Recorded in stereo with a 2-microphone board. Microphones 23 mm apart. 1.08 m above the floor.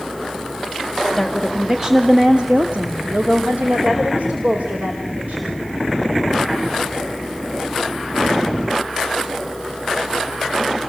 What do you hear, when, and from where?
1.2 s a woman speaking: centre (ahead or behind), 1.9 m; by 5.6 s 85° right, 5.5 m